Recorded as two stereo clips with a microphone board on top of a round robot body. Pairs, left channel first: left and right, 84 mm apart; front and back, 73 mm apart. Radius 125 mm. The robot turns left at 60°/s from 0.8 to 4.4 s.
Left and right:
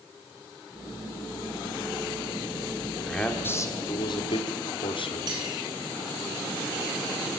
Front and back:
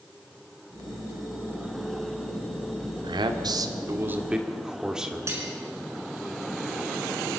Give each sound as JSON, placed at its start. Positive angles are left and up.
{"t": 3.0, "sound": "a man speaking", "azimuth_deg": 180, "distance_m": 2.0}
{"t": 5.3, "sound": "cutlery clinking", "azimuth_deg": -130, "distance_m": 5.5}